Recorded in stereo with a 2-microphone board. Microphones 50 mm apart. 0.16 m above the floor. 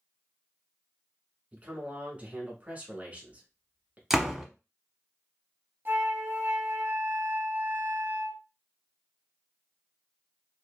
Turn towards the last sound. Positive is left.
turn(degrees=-45)  # may be behind; listen again after turning